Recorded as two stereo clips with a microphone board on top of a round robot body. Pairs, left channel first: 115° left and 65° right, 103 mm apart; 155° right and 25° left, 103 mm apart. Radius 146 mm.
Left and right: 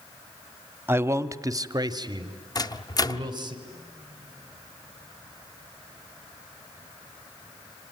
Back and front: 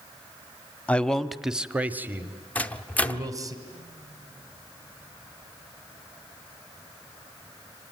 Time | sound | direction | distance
0.9 | a man speaking | 100° right | 1.0 m
2.5 | a microwave | 135° left | 1.0 m